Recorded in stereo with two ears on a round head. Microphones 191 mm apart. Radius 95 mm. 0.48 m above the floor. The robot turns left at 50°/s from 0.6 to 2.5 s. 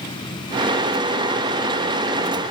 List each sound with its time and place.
Only background noise.